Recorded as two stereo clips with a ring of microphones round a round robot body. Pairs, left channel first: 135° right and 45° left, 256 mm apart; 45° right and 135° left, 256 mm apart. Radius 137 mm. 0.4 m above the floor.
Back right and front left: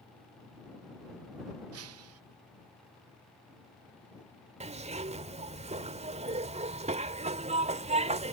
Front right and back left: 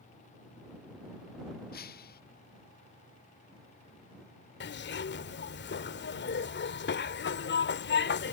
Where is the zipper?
15° right.